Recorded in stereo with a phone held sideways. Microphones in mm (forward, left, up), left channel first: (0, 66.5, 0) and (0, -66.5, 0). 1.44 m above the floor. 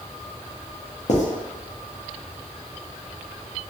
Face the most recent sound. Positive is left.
turn(degrees=60)  # may be behind; listen again after turning